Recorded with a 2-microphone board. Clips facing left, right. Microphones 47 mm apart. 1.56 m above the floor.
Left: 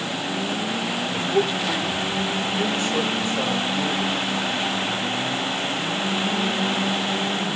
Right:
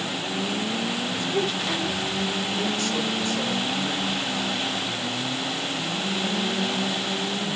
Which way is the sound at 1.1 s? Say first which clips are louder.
Left 6 dB; 20° left (ahead or behind).